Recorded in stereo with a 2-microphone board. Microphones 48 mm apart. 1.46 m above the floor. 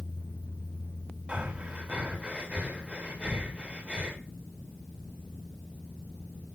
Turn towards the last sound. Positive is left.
turn(degrees=-30)  # may be behind; listen again after turning